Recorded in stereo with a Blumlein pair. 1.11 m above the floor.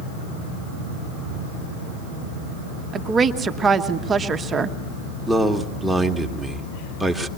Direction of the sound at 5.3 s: Straight ahead.